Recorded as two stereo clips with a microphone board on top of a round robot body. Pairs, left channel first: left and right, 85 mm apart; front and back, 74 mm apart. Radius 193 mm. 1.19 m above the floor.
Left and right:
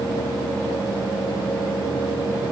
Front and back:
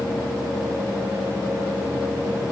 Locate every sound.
Only background noise.